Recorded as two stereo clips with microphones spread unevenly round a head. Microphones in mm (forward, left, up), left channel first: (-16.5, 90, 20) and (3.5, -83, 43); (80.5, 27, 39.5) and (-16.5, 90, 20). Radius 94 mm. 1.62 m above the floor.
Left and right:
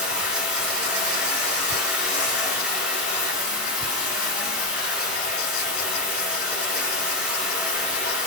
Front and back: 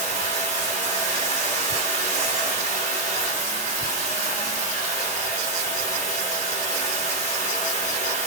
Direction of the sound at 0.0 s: 160° right.